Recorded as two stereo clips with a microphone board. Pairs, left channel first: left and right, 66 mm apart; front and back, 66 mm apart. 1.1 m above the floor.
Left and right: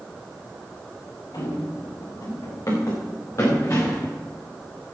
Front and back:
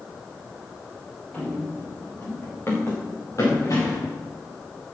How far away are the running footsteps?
About 6 m.